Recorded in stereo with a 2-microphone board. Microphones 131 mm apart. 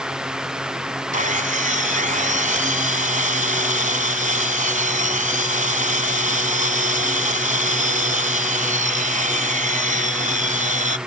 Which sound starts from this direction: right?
Sawing, at 1.1 s.